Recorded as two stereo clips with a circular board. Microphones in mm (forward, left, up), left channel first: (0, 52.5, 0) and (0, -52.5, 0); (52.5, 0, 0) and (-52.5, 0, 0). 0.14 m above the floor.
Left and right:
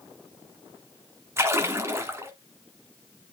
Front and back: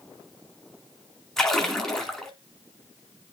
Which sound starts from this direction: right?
A splash, at 1.4 s.